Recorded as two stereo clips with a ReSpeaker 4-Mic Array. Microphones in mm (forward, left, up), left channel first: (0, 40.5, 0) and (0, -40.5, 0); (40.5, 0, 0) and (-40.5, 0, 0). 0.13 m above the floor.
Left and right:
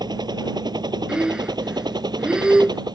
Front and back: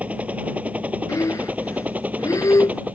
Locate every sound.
0.0 s a helicopter: 110° right
1.1 s breathing: 15° right